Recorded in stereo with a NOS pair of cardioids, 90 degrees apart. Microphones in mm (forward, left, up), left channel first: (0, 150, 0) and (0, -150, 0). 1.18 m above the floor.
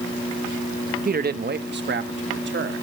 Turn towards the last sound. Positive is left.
turn(degrees=-40)